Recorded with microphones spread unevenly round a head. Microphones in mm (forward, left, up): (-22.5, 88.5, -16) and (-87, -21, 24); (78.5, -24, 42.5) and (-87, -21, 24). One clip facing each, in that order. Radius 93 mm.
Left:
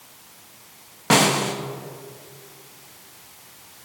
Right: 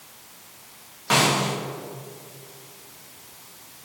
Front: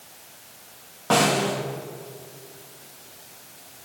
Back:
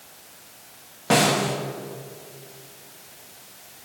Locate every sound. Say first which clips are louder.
1.1 s a snare drum: left 3 dB, even; 100° left, 1.5 m